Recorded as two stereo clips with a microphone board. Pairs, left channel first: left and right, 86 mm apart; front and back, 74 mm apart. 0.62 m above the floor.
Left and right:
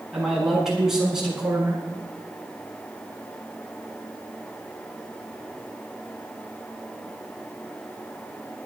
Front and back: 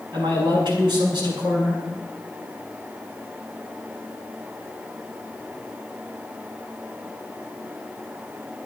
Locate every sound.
0.1 s a man speaking: 175° right, 7 m